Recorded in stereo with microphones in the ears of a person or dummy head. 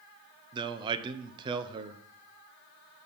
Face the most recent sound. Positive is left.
turn(degrees=-35)  # may be behind; listen again after turning